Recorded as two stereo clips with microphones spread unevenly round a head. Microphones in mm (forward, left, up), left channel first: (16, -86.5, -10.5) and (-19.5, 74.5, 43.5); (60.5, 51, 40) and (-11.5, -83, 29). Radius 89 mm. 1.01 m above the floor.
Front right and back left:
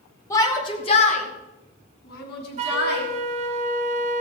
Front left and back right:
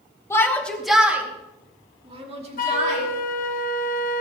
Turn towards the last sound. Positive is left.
turn(degrees=45)